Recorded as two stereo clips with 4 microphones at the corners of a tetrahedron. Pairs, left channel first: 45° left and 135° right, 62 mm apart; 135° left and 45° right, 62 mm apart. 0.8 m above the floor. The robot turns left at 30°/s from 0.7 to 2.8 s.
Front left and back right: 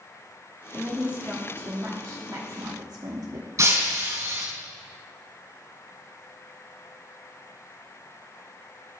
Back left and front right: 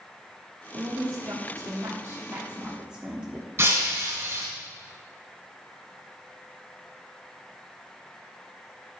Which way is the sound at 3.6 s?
95° right.